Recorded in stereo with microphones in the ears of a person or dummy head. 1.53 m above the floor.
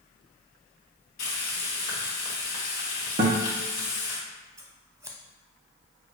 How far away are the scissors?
About 0.7 m.